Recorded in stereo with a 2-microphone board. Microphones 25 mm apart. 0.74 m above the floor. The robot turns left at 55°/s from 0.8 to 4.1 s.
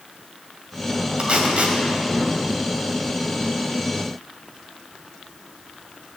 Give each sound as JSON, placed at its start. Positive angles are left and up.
{"t": 1.2, "sound": "tape being pulled", "side_deg": -40, "distance_m": 2.5}